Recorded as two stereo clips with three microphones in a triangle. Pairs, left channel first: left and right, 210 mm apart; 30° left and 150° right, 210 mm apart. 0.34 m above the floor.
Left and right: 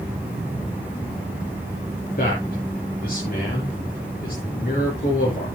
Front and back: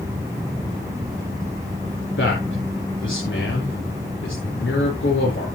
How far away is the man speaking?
About 5.5 m.